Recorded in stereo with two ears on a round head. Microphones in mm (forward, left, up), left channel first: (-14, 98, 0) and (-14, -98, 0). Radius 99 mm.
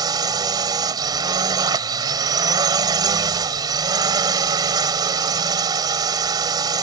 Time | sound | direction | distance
0.0 | a drone | 20° right (ahead or behind) | ?